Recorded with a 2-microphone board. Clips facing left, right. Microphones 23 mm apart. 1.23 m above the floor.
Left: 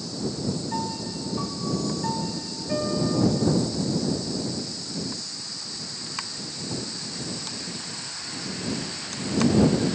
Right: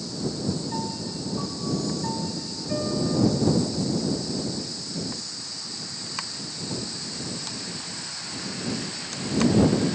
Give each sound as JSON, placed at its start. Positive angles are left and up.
{"t": 0.7, "sound": "a piano", "side_deg": 15}